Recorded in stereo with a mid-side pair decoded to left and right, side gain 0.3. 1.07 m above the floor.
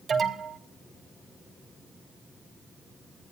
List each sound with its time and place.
0.1 s an alarm: 60° right, 5.5 m